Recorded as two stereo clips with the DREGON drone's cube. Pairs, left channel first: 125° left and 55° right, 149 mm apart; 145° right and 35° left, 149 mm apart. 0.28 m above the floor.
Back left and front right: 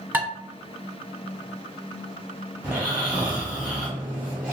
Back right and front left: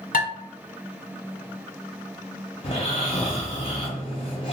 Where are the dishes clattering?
130° right, 1.5 m.